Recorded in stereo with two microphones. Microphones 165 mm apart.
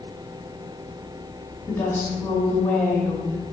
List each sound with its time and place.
1.7 s a woman speaking: 15° left (ahead or behind), 1.8 m